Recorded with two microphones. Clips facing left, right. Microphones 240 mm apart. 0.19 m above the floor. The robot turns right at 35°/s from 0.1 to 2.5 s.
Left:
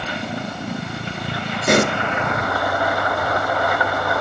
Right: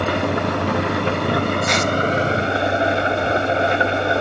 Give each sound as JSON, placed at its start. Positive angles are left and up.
{"t": 0.0, "sound": "an engine running", "azimuth_deg": -110}
{"t": 1.7, "sound": "a pop", "side_deg": 65}